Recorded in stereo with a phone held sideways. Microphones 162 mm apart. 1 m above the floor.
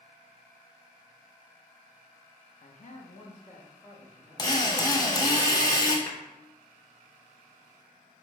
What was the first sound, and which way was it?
A man speaking, 60° left (ahead or behind).